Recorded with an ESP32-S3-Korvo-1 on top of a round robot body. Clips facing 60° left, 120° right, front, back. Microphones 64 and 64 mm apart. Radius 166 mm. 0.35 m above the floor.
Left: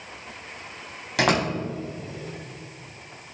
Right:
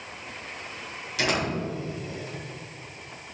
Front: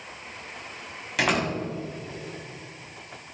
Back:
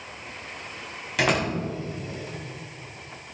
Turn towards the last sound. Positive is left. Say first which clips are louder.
# left 5 dB, back 1 dB
turn(degrees=90)